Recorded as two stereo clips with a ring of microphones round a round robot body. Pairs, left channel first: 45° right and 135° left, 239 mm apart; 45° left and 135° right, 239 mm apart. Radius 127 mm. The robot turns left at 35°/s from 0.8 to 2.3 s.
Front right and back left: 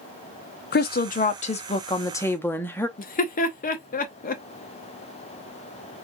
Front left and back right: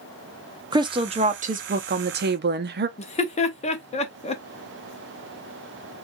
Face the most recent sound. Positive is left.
turn(degrees=-5)